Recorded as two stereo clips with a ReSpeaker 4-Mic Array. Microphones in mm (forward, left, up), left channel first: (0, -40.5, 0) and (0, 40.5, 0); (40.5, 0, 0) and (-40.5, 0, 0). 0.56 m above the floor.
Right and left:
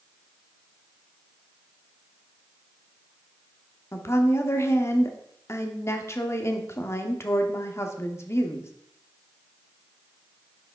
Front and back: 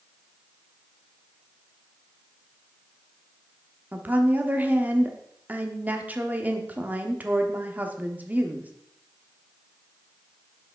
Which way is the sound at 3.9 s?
120° right.